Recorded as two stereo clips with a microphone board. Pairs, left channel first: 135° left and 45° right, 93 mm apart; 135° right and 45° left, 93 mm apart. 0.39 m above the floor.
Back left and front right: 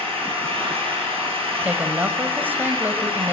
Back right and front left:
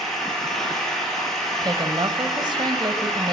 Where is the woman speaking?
20° left, 1.7 m.